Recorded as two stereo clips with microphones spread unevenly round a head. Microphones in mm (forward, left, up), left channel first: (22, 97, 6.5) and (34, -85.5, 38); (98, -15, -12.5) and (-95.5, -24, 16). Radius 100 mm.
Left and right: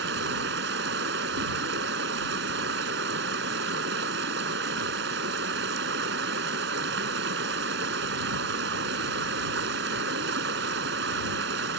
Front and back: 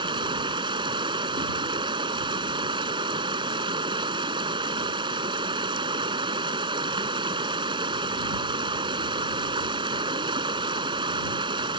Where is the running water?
115° right.